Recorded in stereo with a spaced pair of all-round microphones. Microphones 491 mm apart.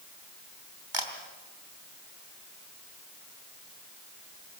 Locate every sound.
0.9 s a camera shutter: 70° right (ahead or behind), 3 m